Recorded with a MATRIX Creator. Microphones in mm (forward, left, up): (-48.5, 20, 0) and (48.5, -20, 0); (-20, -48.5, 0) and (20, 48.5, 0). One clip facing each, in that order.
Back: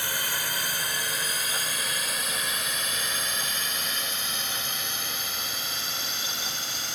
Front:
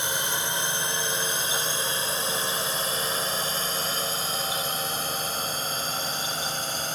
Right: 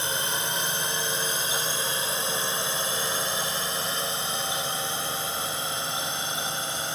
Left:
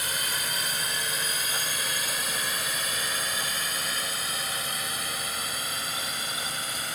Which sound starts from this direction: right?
A drone, at 0.0 s.